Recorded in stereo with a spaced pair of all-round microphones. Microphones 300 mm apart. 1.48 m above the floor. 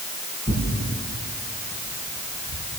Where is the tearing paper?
20° left (ahead or behind), 8 m.